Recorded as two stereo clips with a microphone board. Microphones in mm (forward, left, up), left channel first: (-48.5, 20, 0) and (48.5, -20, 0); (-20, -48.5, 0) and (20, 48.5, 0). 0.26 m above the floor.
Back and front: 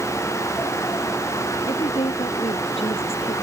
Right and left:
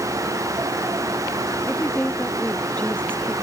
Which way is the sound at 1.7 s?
175° left.